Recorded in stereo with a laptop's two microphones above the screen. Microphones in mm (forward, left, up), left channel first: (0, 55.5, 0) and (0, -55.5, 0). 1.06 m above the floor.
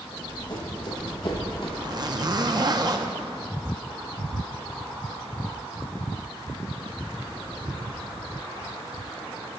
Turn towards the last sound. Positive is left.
turn(degrees=-40)  # may be behind; listen again after turning